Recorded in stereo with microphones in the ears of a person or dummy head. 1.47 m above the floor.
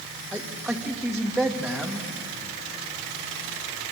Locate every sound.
0.3 s a man speaking: 5° left (ahead or behind), 1.9 m